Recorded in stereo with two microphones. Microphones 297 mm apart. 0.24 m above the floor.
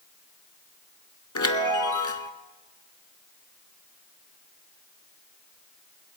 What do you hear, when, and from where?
1.4 s a chime: 80° left, 0.8 m